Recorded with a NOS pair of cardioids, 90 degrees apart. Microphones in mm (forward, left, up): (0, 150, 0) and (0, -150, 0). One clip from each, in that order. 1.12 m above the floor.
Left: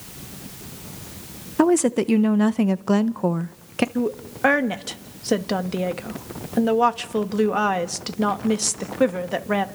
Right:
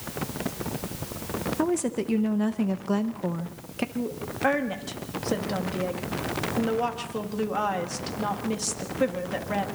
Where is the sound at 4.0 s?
50° left, 2 m.